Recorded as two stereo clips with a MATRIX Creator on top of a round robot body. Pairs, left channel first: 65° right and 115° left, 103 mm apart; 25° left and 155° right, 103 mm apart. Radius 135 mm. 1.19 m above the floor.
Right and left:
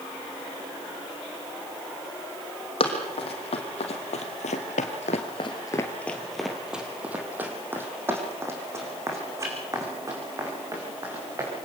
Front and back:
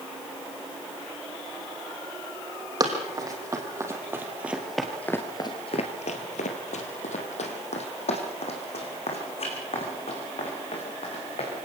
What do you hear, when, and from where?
2.8 s running footsteps: 100° right, 4 m; by 11.5 s 55° left, 9 m